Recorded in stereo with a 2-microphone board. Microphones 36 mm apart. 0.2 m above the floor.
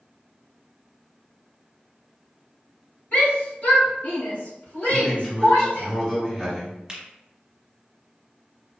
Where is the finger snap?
20° right (ahead or behind), 1.1 m.